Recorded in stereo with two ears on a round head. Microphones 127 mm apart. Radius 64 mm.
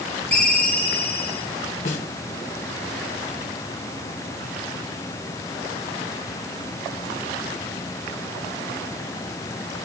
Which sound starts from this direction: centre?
A ringtone, at 0.3 s.